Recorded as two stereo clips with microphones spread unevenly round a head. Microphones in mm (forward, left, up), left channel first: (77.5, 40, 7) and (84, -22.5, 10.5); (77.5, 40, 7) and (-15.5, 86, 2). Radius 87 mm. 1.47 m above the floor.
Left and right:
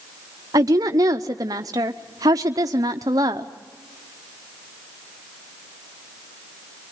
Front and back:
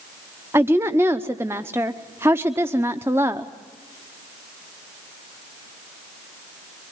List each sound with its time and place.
0.5 s a woman speaking: 135° right, 0.7 m